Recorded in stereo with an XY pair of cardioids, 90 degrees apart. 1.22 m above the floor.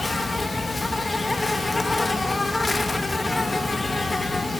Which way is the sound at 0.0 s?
25° left.